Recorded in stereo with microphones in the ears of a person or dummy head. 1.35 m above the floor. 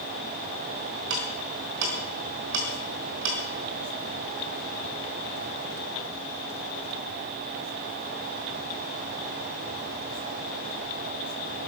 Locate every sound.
1.1 s ticking: 65° right (ahead or behind), 4.5 m